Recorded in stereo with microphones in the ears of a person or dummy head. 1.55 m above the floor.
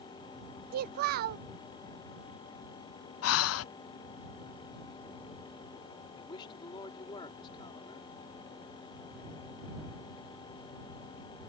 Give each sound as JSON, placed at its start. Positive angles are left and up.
{"t": 0.7, "sound": "a child speaking", "side_deg": -45}
{"t": 3.2, "sound": "breathing", "side_deg": 70}
{"t": 6.1, "sound": "a man speaking", "side_deg": 25}